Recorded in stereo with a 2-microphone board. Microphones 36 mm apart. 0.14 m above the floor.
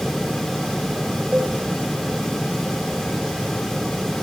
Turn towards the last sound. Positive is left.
turn(degrees=-35)  # may be behind; listen again after turning